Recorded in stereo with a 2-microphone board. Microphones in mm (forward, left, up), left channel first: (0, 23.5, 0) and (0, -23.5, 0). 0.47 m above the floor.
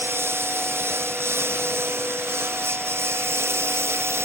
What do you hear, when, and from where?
0.0 s a lawn mower: 55° right (ahead or behind); by 4.2 s 60° right (ahead or behind)